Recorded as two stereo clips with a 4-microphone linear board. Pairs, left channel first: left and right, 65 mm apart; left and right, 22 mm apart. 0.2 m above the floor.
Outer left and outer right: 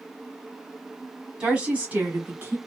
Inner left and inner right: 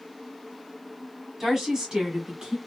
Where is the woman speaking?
15° right (ahead or behind), 1.6 m; by 2.6 s 35° right (ahead or behind), 1.8 m.